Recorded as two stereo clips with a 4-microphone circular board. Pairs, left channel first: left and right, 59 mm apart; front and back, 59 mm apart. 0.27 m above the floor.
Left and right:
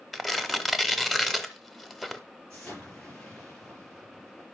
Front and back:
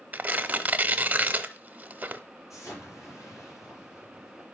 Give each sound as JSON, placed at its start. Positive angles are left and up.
{"t": 0.1, "sound": "tearing paper", "azimuth_deg": -175, "distance_m": 0.8}
{"t": 2.5, "sound": "an explosion", "azimuth_deg": 20, "distance_m": 6.0}